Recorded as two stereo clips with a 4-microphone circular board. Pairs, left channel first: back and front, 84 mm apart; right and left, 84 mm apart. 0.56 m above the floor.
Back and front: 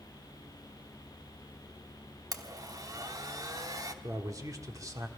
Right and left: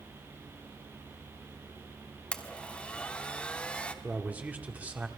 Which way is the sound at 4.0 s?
25° left.